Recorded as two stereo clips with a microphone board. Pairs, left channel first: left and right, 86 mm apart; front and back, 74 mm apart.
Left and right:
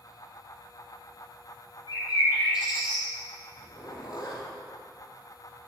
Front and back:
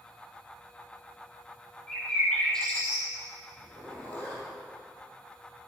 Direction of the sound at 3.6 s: 70° left.